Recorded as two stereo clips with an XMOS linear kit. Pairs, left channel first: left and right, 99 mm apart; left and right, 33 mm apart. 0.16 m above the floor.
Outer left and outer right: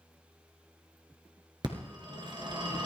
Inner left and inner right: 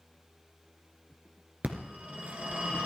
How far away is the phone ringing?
About 1.9 m.